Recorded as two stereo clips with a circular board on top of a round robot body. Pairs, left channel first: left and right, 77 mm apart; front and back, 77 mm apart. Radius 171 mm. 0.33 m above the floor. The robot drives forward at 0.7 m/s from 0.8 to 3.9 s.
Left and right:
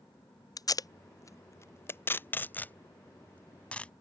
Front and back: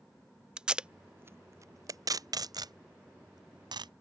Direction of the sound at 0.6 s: 105° left.